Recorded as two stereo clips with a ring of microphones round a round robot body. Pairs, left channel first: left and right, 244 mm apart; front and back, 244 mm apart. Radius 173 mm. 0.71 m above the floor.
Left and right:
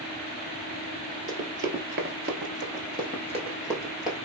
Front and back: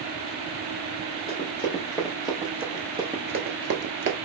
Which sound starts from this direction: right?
Running footsteps, at 1.3 s.